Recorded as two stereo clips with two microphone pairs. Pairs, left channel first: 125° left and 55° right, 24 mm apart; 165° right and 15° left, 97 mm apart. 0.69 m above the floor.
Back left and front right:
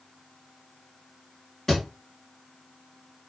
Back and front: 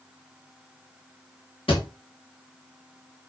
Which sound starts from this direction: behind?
A thud, at 1.7 s.